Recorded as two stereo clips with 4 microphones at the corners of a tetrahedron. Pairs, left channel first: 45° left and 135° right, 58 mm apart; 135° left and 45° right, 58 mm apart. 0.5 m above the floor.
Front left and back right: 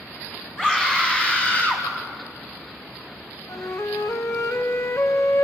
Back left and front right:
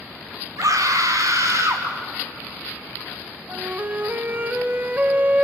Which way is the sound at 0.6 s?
30° right.